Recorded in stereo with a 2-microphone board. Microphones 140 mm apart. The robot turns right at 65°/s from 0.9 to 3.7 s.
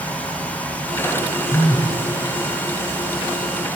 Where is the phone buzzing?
80° left, 0.9 m; by 2.0 s 110° left, 0.9 m.